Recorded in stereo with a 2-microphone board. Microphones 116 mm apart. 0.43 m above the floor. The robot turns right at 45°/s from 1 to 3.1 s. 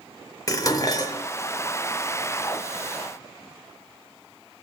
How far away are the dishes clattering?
About 0.6 m.